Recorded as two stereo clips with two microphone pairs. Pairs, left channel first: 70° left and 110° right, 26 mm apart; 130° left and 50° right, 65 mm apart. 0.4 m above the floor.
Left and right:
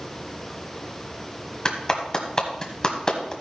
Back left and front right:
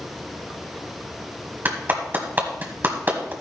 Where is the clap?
5° left, 1.7 m.